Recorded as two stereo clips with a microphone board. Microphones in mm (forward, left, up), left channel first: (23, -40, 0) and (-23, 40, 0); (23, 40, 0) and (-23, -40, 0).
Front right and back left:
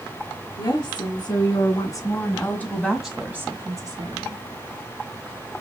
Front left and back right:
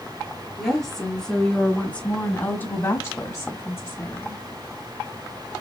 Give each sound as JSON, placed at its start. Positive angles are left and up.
{"t": 0.6, "sound": "a woman speaking", "azimuth_deg": -25, "distance_m": 4.0}